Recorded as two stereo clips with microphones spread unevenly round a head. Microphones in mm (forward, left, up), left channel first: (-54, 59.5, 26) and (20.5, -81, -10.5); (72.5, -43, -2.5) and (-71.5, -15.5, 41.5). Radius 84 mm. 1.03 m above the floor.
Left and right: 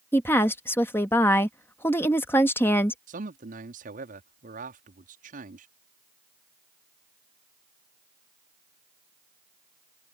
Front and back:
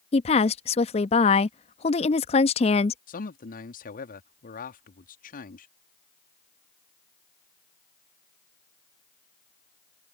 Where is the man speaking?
25° right.